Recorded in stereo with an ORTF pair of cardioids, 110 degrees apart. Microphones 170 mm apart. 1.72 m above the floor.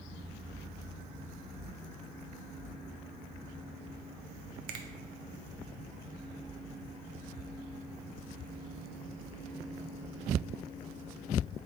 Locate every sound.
4.7 s a finger snap: 60° right, 0.5 m